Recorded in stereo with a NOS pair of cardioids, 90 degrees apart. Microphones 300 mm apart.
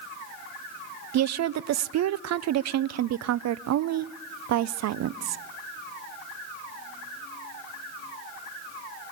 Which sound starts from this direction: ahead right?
A woman speaking, at 1.1 s.